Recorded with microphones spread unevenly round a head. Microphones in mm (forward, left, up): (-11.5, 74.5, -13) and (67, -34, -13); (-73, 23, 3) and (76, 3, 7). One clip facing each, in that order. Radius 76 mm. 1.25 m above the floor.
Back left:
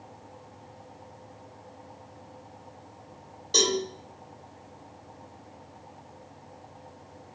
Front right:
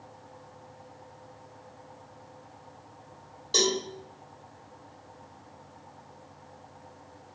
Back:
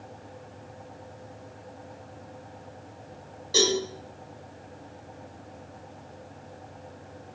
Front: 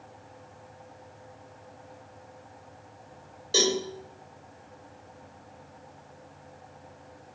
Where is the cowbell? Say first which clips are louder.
Back left 1 dB, back 1 dB; 40° left, 1.2 m.